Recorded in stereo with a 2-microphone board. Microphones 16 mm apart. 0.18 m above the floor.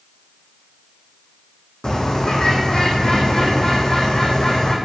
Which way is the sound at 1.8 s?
50° left (ahead or behind).